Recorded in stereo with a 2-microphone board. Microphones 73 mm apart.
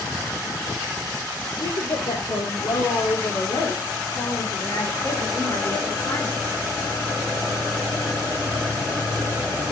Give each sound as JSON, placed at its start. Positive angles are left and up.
{"t": 1.5, "sound": "a woman speaking", "side_deg": 75, "distance_m": 5.5}